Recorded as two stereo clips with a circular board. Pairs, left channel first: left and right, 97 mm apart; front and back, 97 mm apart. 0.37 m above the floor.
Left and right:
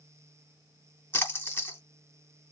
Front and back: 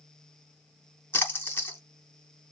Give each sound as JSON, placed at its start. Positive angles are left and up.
{"t": 1.1, "sound": "a splash", "azimuth_deg": 45, "distance_m": 1.0}